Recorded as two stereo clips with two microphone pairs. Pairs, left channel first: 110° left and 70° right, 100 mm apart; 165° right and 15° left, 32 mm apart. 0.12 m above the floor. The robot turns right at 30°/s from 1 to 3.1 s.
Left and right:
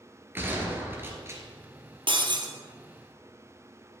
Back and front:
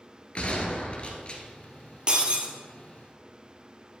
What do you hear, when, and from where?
0.3 s a gunshot: 130° right, 1.3 m; by 1.4 s 115° right, 1.3 m
2.1 s breaking glass: 45° right, 1.1 m; by 2.5 s 35° right, 1.1 m